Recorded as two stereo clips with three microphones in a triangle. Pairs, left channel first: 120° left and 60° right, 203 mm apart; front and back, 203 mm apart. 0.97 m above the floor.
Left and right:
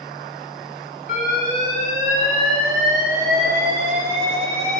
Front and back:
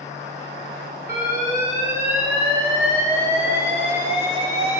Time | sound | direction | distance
1.1 | an alarm | 100° right | 4 m